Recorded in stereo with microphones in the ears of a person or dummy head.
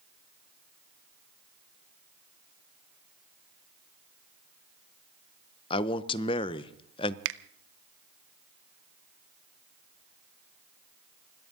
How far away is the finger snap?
About 0.7 m.